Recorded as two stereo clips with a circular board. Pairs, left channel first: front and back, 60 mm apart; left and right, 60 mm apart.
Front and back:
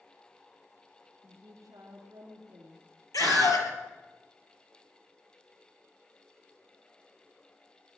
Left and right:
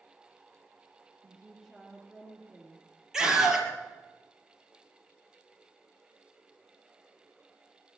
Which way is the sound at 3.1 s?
10° right.